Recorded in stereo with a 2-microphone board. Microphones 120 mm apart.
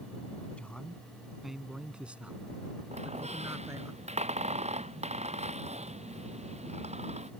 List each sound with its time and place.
0.6 s a man speaking: 10° left (ahead or behind); by 3.9 s 25° right (ahead or behind)
2.9 s a squeak: 65° right (ahead or behind)